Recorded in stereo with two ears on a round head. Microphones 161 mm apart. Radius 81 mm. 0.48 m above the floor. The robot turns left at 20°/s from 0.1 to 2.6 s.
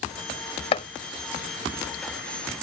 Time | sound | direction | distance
0.7 | chopping | 35° left (ahead or behind) | ?